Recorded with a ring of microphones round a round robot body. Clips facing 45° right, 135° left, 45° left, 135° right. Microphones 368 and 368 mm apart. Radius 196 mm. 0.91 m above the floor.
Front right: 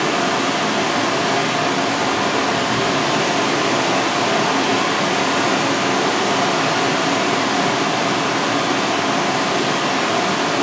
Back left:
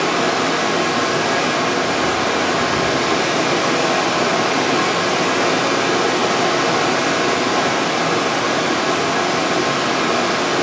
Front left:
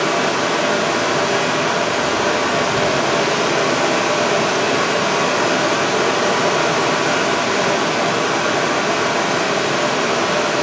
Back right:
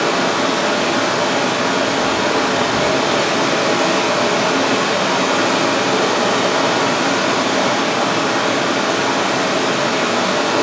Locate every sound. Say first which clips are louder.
0.0 s running water: back left 1 dB, back right 1 dB; 115° right, 7.5 m